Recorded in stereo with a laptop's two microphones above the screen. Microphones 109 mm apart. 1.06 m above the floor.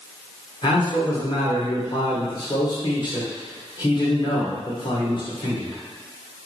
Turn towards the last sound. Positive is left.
turn(degrees=45)  # may be behind; listen again after turning